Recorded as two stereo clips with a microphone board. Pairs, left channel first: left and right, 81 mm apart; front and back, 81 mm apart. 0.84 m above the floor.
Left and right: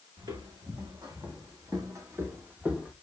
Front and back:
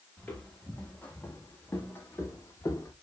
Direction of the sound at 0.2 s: 70° right.